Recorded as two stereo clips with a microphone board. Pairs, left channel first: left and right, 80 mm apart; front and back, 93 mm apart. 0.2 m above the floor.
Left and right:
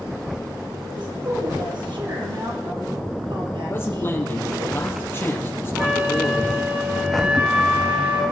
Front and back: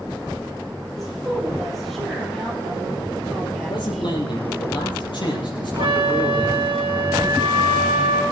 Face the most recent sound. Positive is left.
turn(degrees=-155)